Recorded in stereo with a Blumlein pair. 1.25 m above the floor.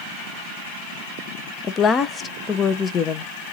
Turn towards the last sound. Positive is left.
turn(degrees=20)